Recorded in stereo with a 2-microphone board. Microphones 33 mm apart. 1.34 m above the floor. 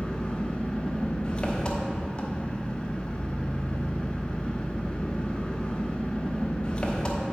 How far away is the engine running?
About 0.9 m.